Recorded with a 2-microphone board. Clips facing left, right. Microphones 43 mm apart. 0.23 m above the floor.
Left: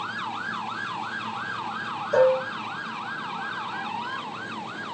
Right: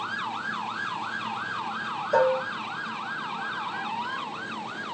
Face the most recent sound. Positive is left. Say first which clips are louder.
# left 3 dB
turn(degrees=-5)  # may be behind; listen again after turning